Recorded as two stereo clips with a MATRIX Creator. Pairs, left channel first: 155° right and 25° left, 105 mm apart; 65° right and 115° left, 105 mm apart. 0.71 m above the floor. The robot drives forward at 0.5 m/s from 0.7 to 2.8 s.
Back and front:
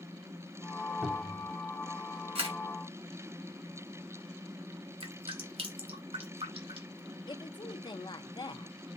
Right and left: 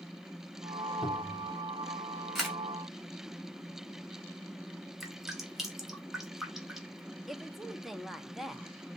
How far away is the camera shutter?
About 3 m.